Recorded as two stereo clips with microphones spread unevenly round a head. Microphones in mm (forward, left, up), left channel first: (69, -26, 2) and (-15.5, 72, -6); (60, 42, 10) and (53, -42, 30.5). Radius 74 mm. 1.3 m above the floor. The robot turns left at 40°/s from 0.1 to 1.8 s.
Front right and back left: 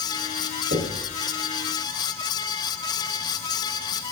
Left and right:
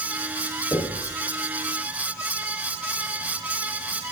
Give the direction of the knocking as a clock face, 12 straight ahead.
7 o'clock.